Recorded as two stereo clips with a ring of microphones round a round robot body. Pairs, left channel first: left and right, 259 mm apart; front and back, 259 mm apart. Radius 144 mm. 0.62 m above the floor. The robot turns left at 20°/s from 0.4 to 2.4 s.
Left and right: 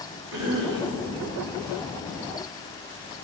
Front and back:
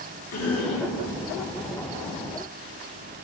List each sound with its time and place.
0.3 s a cough: 10° right, 5 m; by 0.9 s 20° right, 5 m